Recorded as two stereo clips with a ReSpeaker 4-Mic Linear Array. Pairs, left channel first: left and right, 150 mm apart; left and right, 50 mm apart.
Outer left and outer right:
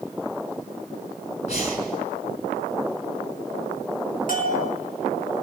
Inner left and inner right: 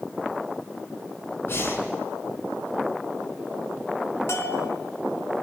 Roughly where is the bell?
Left.